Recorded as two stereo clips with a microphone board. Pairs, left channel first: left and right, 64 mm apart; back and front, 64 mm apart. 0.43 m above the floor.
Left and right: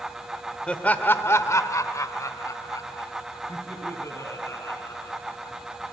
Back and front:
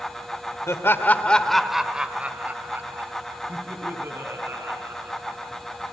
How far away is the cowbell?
No cowbell in this recording.